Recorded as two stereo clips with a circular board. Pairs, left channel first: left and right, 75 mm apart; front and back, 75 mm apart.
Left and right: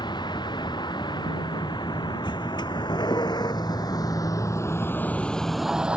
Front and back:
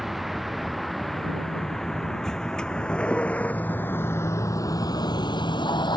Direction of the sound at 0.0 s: 90° left.